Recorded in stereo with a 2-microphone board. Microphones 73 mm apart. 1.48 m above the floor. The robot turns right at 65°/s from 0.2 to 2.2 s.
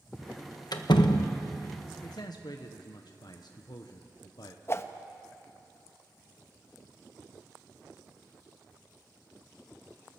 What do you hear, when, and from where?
0.7 s a door slam: 65° left, 1.2 m; by 1.4 s 110° left, 1.2 m
2.0 s a man speaking: 55° left (ahead or behind), 1.2 m; by 4.6 s 65° left (ahead or behind), 1.2 m
4.7 s a whoosh: 35° left (ahead or behind), 0.9 m